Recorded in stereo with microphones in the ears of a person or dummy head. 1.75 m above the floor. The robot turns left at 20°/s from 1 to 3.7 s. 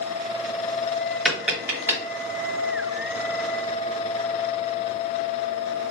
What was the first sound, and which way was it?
Tapping, 5° left (ahead or behind).